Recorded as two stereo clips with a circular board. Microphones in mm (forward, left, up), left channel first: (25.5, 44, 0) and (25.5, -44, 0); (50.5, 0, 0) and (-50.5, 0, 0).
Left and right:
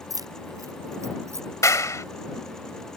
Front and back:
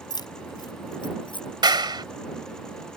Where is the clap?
140° left.